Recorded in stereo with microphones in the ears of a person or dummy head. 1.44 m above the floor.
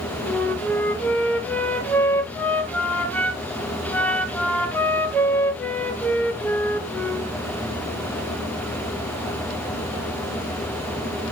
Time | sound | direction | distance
0.3 | a flute | 5° left (ahead or behind) | 1.1 m